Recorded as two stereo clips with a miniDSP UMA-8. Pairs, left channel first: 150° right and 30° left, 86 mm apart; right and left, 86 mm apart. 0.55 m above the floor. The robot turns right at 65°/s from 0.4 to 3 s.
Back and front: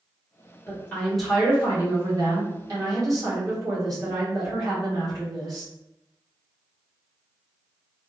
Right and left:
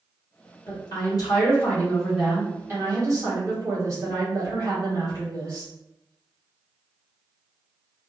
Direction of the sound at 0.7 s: 95° right.